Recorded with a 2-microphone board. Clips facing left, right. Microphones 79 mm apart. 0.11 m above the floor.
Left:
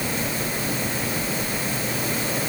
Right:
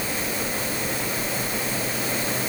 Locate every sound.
Only background noise.